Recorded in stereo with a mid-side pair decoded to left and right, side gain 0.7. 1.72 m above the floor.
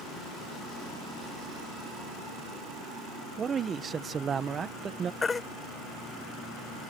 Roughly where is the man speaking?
Ahead right.